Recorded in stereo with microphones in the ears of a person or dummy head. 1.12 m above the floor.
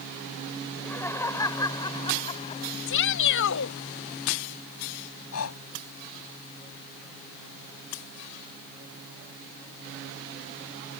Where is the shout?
65° left (ahead or behind).